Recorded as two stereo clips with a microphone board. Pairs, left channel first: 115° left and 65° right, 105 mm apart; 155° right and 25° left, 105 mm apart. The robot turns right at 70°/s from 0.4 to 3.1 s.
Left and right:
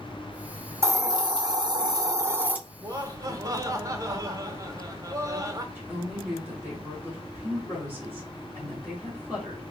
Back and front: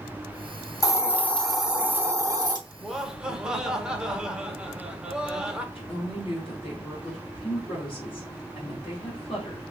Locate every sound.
0.8 s a hiss: 120° right, 1.0 m; by 2.6 s straight ahead, 1.0 m
2.8 s laughter: 80° right, 0.8 m; by 5.7 s 55° right, 0.8 m
5.8 s a woman speaking: 150° right, 1.9 m